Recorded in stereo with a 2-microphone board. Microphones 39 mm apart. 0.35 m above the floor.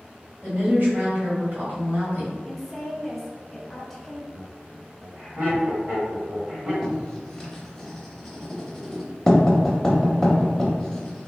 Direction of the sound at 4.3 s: 35° right (ahead or behind).